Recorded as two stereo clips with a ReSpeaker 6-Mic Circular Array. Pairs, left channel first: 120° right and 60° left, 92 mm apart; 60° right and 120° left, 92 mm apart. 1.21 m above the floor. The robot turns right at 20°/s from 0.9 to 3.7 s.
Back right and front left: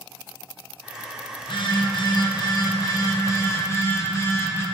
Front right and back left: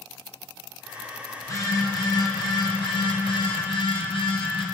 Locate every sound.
1.4 s a phone buzzing: 110° right, 0.5 m; by 4.7 s 65° right, 0.5 m